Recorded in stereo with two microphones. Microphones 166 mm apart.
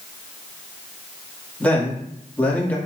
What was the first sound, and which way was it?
A man speaking, 10° left (ahead or behind).